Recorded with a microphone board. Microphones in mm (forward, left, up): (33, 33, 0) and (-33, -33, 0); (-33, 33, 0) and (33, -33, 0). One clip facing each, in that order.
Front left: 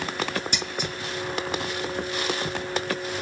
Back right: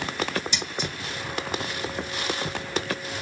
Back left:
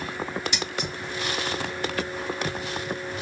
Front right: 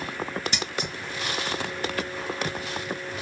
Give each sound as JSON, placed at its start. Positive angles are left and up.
{"t": 0.5, "sound": "scissors", "azimuth_deg": 5, "distance_m": 2.0}